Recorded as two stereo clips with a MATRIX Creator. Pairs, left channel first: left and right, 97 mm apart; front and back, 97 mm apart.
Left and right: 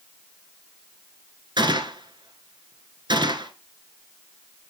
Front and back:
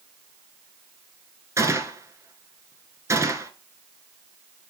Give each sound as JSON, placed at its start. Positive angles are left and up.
{"t": 1.6, "sound": "a gunshot", "azimuth_deg": -125, "distance_m": 1.6}